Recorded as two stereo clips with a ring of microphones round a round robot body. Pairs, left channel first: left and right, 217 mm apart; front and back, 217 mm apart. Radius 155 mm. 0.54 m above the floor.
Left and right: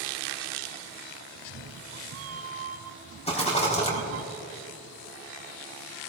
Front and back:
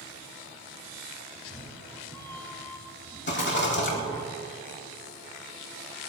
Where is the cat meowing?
80° right, 0.7 m.